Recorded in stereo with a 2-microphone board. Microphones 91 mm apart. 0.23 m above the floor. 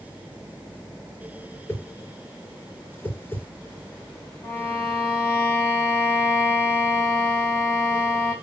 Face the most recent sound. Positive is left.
turn(degrees=-5)  # may be behind; listen again after turning